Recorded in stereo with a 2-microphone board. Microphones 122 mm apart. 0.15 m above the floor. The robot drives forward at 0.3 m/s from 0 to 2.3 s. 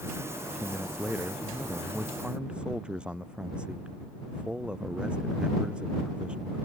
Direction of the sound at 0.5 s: 10° right (ahead or behind).